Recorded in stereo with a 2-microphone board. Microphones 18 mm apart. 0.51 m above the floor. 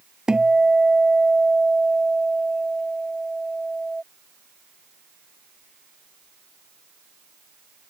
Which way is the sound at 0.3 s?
40° right (ahead or behind).